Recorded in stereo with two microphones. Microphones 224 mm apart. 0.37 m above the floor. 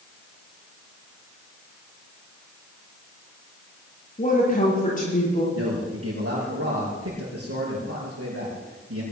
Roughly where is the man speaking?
Right.